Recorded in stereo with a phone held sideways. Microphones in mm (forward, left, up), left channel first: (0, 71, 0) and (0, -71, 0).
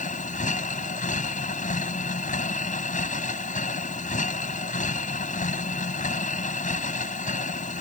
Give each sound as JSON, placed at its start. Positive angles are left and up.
{"t": 0.0, "sound": "a machine running", "side_deg": 65}